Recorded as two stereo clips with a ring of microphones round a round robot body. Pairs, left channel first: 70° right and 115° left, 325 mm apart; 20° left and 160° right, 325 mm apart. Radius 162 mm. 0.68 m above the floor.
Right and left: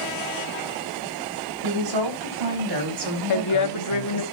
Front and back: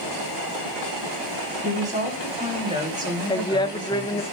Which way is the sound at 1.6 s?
135° left.